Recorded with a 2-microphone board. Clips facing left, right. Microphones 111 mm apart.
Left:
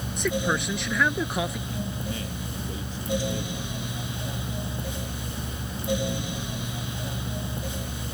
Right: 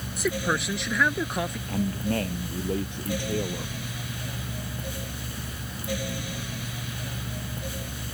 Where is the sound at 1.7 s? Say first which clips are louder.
Right 5 dB; 70° right (ahead or behind).